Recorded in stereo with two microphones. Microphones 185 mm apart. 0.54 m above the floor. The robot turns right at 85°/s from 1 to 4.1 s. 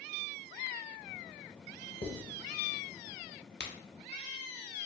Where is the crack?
65° left (ahead or behind), 0.6 m; by 3.7 s 70° left (ahead or behind), 0.6 m.